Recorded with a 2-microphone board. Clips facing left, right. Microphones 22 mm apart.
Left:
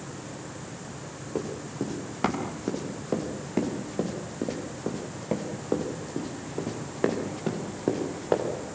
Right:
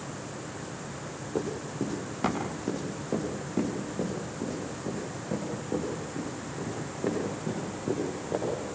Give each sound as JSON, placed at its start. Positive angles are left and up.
{"t": 1.4, "sound": "running footsteps", "side_deg": 5, "distance_m": 6.0}